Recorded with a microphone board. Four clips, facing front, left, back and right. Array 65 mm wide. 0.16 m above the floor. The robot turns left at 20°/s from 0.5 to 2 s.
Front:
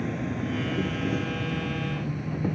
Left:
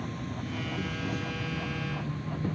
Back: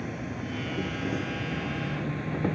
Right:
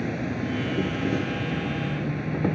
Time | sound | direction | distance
0.0 | an insect | 80° right | ?